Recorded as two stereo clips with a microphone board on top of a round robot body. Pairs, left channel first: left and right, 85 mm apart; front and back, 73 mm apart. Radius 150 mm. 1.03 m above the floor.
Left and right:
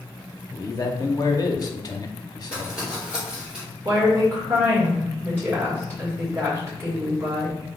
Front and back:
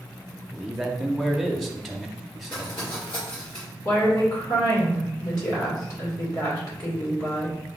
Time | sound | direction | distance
0.5 | a man speaking | 95° left | 0.9 m
2.5 | crumpling | 10° right | 1.5 m
3.9 | a woman speaking | 30° right | 2 m